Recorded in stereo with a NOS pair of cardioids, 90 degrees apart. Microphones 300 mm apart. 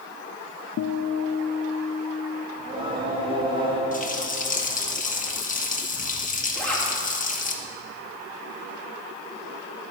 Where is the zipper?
5° left, 3 m.